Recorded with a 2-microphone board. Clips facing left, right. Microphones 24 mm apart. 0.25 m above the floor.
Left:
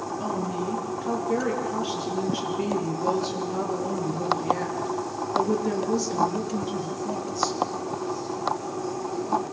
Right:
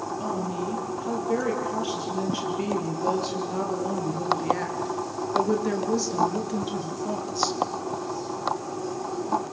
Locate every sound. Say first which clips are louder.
0.2 s a woman speaking: left 2 dB; centre (ahead or behind), 7.5 m; by 7.6 s 30° right (ahead or behind), 4 m